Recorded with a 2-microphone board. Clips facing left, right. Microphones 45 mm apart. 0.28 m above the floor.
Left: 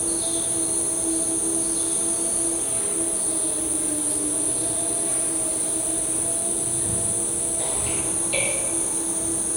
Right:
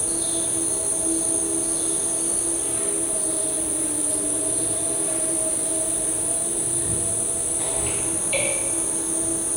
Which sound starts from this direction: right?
An insect, at 0.0 s.